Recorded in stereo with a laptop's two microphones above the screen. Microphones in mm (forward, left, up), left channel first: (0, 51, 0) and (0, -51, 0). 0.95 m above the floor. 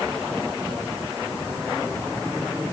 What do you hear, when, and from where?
Only background noise.